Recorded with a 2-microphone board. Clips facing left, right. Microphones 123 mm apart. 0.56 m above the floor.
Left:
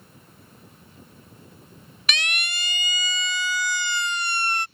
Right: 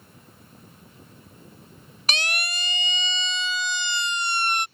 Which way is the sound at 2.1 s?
35° right (ahead or behind).